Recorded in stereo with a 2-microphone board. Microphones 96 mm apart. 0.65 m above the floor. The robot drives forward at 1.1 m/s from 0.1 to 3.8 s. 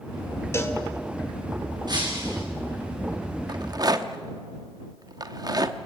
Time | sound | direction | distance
0.5 | a cowbell | 30° left (ahead or behind) | 2.0 m
1.9 | breaking glass | 45° right (ahead or behind) | 4 m
3.5 | a rattle | 45° right (ahead or behind) | 1.0 m